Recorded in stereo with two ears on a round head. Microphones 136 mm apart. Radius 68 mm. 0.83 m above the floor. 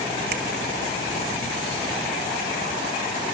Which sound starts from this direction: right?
A finger snap, at 0.3 s.